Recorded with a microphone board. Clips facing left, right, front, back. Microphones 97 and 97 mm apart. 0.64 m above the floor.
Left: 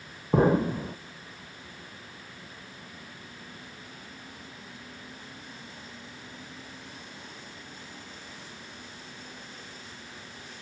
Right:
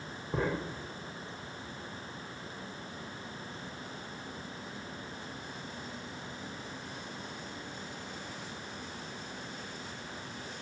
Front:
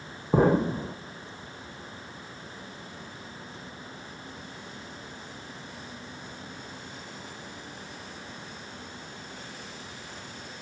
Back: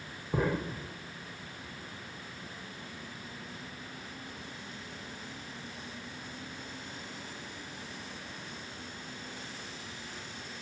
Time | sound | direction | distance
0.3 | an explosion | 45° left | ?